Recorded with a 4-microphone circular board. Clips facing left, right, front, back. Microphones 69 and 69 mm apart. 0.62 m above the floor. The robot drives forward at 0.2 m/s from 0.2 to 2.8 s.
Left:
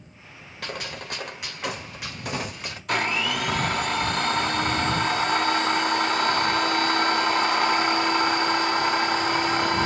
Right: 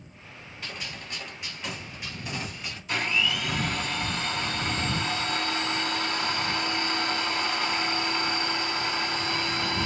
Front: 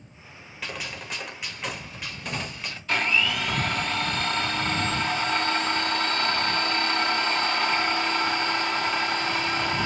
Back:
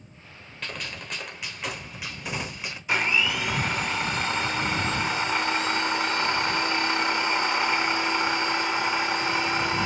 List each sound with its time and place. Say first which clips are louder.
0.6 s a gunshot: left 6 dB, front 1 dB; 85° left, 1.2 m; by 2.8 s 105° left, 1.3 m
2.9 s a blender: left 3 dB, even; 105° left, 1.2 m